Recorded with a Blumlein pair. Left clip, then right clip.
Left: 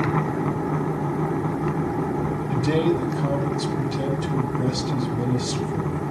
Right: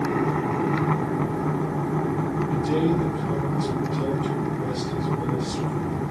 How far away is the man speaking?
About 6 m.